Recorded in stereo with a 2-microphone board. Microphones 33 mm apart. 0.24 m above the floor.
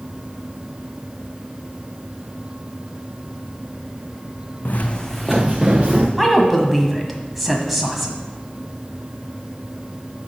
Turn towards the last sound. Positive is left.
turn(degrees=0)  # may be behind; listen again after turning